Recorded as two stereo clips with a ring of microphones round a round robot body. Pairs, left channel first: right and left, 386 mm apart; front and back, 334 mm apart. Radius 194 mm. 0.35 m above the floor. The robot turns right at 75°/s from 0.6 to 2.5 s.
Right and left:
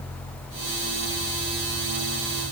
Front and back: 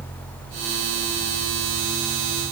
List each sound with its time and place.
Only background noise.